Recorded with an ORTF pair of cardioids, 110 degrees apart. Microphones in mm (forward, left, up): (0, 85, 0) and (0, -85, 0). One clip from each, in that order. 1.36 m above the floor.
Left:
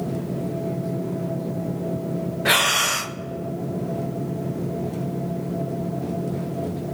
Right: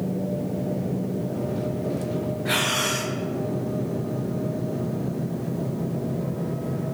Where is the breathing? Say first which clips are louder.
Left 6 dB; 65° left, 0.5 m.